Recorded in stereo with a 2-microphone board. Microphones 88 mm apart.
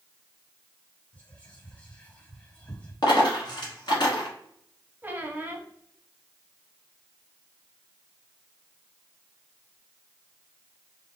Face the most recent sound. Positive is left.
turn(degrees=-20)  # may be behind; listen again after turning